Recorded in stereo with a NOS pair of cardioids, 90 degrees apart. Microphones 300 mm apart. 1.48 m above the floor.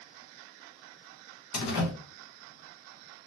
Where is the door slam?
60° left, 1.1 m.